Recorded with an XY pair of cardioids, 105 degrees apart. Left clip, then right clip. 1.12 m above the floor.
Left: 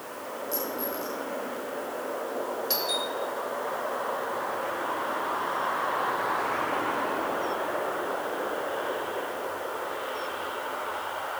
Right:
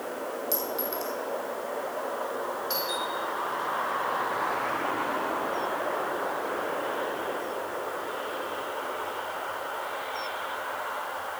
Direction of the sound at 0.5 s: 70° right.